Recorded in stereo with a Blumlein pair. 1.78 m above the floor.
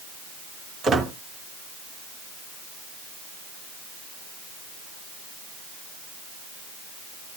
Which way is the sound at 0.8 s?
20° right.